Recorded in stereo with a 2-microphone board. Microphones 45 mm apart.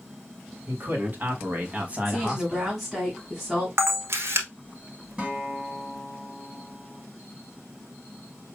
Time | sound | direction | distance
0.7 | a man speaking | 45° right (ahead or behind) | 1.8 m
2.0 | a woman speaking | centre (ahead or behind) | 2 m
3.8 | a camera shutter | 70° right (ahead or behind) | 1.1 m
5.2 | a guitar | 20° right (ahead or behind) | 1.7 m